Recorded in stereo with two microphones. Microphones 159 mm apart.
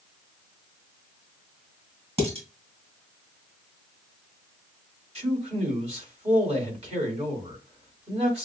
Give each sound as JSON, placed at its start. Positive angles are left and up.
{"t": 2.2, "sound": "dishes clattering", "side_deg": -40, "distance_m": 2.5}
{"t": 5.2, "sound": "a man speaking", "side_deg": -45, "distance_m": 2.5}